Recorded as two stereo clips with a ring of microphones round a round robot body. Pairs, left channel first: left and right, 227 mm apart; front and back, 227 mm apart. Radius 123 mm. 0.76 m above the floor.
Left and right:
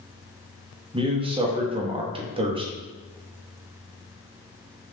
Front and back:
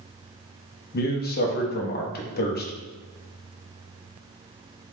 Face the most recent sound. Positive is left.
turn(degrees=-30)